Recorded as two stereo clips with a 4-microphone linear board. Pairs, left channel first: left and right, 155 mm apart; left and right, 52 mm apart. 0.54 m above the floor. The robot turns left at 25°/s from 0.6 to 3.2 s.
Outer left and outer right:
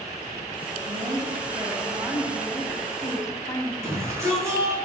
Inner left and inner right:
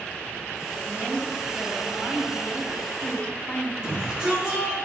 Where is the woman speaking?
140° right, 4.5 m; by 3.7 s 165° left, 4.5 m.